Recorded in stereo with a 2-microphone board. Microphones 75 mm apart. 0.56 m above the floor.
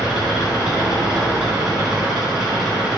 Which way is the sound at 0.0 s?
10° right (ahead or behind).